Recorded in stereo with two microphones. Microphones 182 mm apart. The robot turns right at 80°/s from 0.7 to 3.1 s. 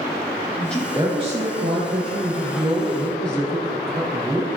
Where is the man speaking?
170° left, 3.5 m; by 4.5 s 5° left, 3.5 m.